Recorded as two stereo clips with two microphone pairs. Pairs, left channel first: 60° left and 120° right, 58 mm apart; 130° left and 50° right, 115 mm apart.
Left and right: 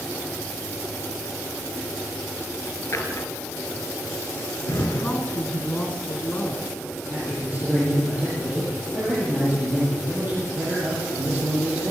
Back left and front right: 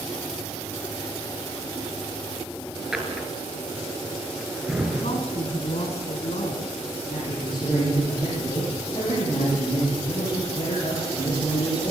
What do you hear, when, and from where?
2.9 s a drawer: 35° left, 3 m
5.0 s a woman speaking: 130° left, 3.5 m
7.1 s a man speaking: straight behind, 8.5 m